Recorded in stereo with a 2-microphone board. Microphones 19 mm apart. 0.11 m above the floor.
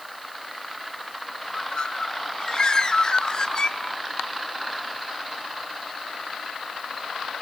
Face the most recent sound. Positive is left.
turn(degrees=40)  # may be behind; listen again after turning